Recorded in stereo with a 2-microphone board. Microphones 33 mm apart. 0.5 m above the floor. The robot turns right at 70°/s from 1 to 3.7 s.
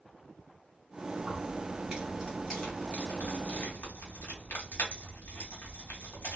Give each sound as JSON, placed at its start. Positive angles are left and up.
{"t": 1.2, "sound": "keys jangling", "side_deg": -70, "distance_m": 1.2}